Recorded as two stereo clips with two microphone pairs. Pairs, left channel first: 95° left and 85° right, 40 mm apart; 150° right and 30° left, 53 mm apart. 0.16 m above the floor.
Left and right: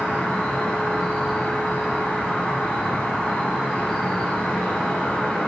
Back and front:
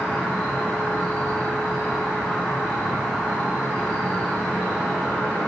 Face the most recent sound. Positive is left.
turn(degrees=155)